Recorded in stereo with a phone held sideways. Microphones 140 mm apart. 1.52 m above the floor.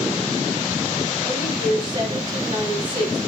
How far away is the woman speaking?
About 8.5 m.